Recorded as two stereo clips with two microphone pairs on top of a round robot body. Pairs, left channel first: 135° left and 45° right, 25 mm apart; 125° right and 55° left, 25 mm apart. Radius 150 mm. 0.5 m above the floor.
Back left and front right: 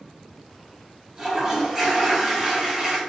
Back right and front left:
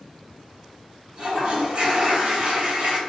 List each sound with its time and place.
1.2 s a toilet flushing: 20° left, 1.9 m